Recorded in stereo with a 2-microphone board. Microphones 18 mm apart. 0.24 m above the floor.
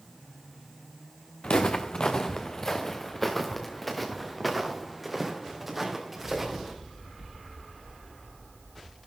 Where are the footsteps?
55° left (ahead or behind), 1.3 m; by 6.7 s 20° right (ahead or behind), 3.5 m.